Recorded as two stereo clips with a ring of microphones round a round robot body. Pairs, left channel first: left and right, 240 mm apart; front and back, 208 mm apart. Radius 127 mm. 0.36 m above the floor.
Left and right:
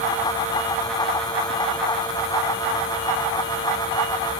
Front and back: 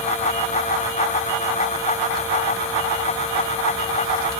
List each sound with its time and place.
Only background noise.